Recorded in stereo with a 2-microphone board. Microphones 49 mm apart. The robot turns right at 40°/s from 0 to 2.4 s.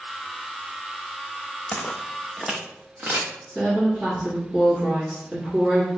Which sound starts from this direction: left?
Footsteps, at 1.7 s.